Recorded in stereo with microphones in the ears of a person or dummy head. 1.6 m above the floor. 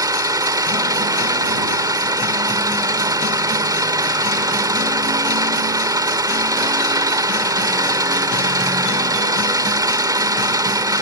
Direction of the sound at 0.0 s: 15° right (ahead or behind).